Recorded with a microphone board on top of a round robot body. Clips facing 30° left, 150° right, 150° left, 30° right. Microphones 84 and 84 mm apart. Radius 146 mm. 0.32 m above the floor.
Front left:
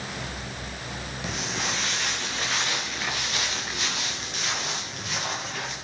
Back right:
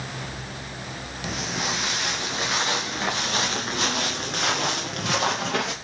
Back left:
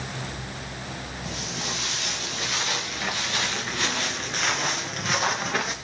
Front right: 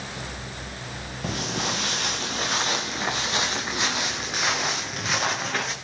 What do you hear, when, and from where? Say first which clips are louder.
1.2 s footsteps: back right 3 dB, front right 7 dB; 65° right, 4 m; by 5.7 s 125° right, 4.5 m